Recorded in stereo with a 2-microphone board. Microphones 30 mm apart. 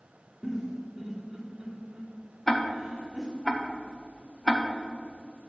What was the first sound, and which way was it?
A giggle, 15° right (ahead or behind).